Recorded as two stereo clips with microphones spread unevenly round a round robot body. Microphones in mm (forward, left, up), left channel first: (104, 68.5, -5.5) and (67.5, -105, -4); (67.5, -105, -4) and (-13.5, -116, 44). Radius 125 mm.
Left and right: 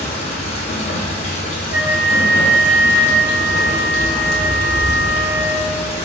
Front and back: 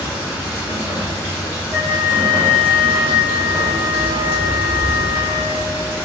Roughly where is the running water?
Left.